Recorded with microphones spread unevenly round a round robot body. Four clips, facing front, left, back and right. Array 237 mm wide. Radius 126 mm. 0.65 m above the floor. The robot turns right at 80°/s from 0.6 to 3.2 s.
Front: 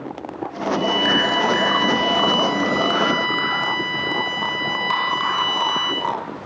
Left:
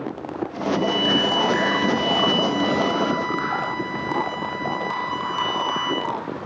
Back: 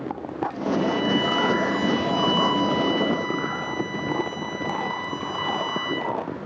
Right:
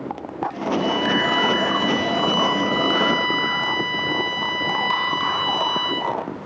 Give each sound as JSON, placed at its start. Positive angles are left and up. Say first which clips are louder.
{"t": 0.7, "sound": "a violin", "louder": "even, front 2 dB", "azimuth_deg": 105, "distance_m": 6.0}